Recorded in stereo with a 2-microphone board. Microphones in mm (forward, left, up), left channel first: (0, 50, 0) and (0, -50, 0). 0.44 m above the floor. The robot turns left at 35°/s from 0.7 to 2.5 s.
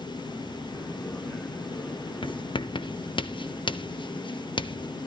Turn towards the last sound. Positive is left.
turn(degrees=55)  # may be behind; listen again after turning